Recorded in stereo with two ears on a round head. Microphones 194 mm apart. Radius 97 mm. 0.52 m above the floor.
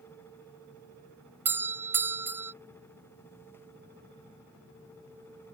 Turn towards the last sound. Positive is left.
turn(degrees=-10)  # may be behind; listen again after turning